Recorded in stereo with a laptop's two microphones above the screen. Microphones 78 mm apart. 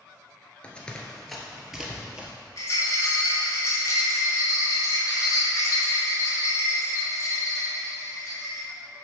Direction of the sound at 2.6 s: 40° left (ahead or behind).